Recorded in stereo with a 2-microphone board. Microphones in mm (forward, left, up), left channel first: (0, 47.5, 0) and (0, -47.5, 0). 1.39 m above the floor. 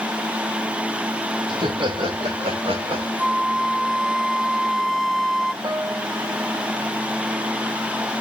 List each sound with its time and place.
1.5 s laughter: 65° right (ahead or behind), 5 m; by 3.1 s 85° right, 4.5 m
3.2 s a flute: 5° right (ahead or behind), 0.6 m
5.6 s a piano: 55° right (ahead or behind), 2.5 m